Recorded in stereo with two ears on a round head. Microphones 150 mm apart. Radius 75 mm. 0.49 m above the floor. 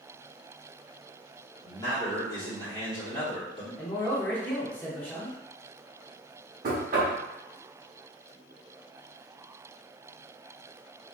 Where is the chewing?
I don't hear chewing.